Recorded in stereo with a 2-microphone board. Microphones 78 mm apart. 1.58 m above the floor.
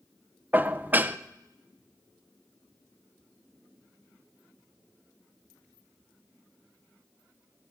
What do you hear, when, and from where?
0.5 s dishes clattering: 25° right (ahead or behind), 0.6 m